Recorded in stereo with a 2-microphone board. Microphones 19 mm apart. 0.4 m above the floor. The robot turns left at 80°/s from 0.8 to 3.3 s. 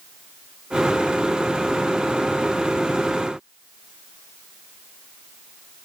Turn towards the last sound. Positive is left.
No sound to turn to.